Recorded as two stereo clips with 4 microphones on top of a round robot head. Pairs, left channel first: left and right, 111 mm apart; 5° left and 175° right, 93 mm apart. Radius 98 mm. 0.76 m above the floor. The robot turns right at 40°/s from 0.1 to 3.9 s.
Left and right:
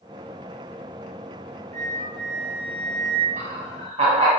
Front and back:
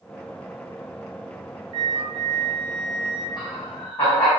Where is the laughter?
80° right, 2.5 m; by 4.3 s 60° right, 2.5 m.